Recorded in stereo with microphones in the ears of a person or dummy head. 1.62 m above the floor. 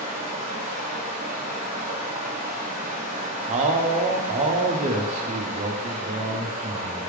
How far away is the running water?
About 0.8 m.